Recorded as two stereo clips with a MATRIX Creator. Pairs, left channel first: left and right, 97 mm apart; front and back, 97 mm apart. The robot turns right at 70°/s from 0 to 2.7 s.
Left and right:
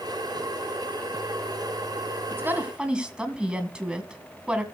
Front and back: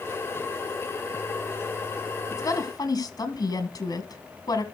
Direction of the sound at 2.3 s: 40° right.